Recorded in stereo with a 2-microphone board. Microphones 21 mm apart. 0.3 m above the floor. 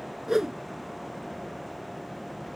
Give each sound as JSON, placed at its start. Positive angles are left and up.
{"t": 0.3, "sound": "a whoosh", "side_deg": -30}